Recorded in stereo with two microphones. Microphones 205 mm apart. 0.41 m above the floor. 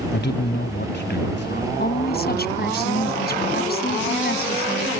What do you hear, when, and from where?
0.1 s a man speaking: 55° left (ahead or behind)
1.8 s a woman speaking: 50° left (ahead or behind)